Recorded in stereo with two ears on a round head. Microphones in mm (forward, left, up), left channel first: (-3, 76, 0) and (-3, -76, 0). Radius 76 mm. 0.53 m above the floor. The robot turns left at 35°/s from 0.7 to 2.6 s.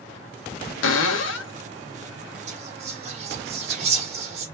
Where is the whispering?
40° right (ahead or behind), 0.8 m.